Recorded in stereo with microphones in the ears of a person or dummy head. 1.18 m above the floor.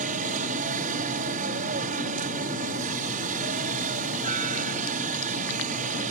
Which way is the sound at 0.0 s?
45° right (ahead or behind).